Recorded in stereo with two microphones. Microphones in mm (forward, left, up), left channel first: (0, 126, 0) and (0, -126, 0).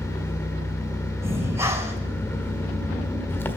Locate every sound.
0.0 s an engine running: 10° left (ahead or behind), 1.2 m
1.2 s breathing: 10° right (ahead or behind), 2 m